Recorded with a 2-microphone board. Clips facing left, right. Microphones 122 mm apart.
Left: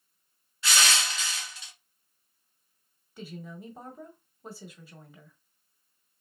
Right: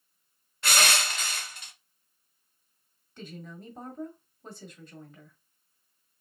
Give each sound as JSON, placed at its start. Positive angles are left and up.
{"t": 0.6, "sound": "crushing", "side_deg": -55, "distance_m": 0.7}
{"t": 3.2, "sound": "a woman speaking", "side_deg": 5, "distance_m": 1.3}